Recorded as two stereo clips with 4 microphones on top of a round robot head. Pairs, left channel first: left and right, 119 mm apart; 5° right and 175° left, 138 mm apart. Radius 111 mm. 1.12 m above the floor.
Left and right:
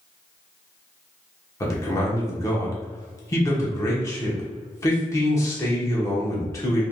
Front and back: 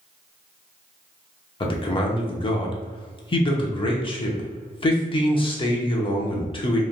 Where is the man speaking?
35° left, 0.8 m.